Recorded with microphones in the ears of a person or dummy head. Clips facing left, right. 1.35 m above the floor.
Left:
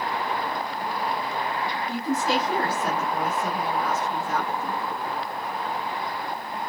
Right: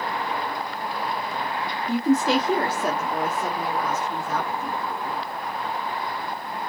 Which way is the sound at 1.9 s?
60° right (ahead or behind).